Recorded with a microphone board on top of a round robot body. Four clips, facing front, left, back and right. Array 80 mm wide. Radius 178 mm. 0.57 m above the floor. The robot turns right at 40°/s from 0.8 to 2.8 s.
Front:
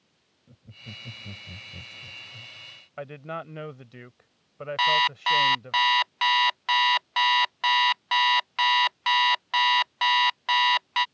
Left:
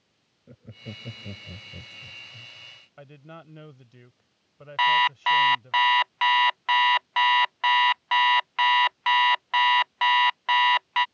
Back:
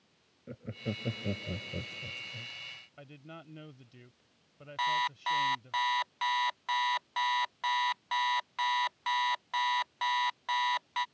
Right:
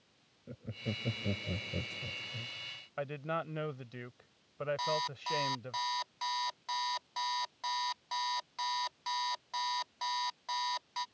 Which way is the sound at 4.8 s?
75° left.